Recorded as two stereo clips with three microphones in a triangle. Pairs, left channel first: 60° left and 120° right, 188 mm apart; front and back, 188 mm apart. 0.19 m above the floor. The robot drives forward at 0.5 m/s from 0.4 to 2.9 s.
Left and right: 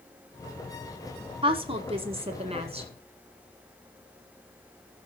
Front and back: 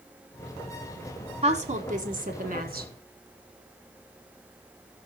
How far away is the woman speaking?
About 1.2 m.